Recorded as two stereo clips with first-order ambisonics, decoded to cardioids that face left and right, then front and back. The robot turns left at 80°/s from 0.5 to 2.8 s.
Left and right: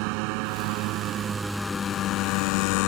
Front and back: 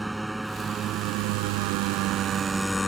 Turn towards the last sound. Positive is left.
turn(degrees=80)